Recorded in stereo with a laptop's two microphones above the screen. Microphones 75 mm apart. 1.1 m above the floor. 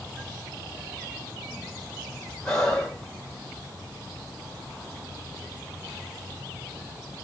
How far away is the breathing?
About 1.8 m.